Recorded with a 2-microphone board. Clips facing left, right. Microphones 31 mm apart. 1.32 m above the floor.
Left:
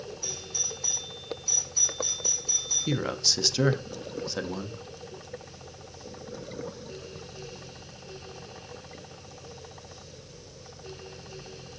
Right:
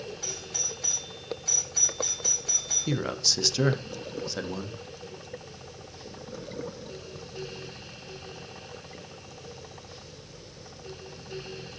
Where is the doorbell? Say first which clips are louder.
Even; 60° right (ahead or behind), 5.5 m.